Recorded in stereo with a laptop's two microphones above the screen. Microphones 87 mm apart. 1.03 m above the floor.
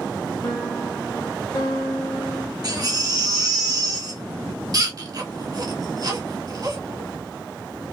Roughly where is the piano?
Left.